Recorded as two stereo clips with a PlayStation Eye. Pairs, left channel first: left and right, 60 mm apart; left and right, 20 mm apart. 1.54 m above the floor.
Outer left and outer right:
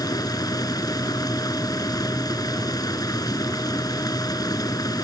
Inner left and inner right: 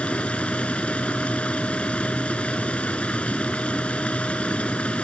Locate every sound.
0.0 s running water: 85° left